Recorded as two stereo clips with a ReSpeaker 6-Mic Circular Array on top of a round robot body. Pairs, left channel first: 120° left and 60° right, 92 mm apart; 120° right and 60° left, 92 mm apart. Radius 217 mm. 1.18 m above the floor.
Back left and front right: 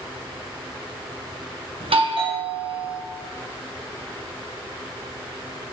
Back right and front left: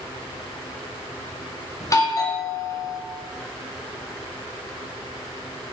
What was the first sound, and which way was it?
A doorbell, 65° right.